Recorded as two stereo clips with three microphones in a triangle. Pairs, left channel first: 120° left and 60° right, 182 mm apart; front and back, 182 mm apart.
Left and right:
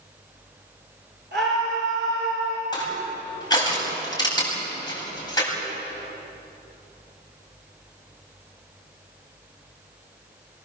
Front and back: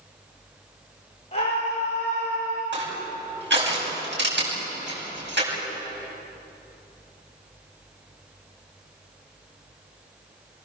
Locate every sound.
1.3 s a scream: 55° right, 5 m
2.7 s crushing: 170° right, 8.5 m